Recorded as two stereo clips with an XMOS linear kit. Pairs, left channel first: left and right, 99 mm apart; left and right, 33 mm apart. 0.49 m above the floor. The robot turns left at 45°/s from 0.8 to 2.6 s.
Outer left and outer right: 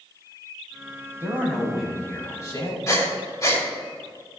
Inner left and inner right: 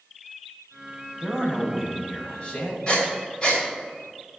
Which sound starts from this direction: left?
Breathing, at 2.9 s.